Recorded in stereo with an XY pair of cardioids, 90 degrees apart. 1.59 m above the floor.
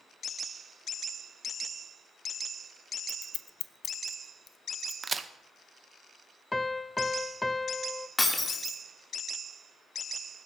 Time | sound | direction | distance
3.1 | scissors | 65° left | 0.5 m
5.0 | a crack | 40° right | 0.8 m
6.5 | a piano | 15° left | 0.6 m
8.2 | breaking glass | 20° left | 2.5 m